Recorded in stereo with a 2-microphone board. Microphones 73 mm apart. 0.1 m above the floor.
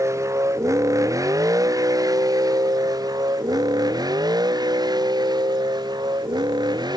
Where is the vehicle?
40° right (ahead or behind); by 7.0 s 75° right (ahead or behind).